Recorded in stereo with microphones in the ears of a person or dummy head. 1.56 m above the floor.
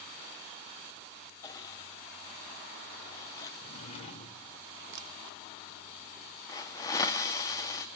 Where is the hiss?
20° left (ahead or behind), 1.3 m.